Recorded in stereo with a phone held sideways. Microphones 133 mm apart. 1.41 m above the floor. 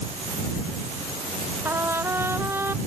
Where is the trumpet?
15° right (ahead or behind).